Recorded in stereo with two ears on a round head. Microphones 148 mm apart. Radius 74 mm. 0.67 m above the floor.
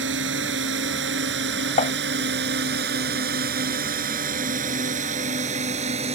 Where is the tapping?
40° left (ahead or behind).